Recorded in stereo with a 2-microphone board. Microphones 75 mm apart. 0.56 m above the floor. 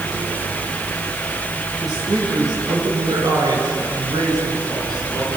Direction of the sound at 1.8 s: 85° right.